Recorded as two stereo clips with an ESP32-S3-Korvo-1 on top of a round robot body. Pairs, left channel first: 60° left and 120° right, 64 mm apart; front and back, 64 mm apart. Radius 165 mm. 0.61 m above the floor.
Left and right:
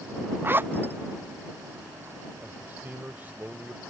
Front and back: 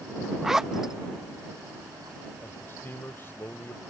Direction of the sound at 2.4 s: 55° right.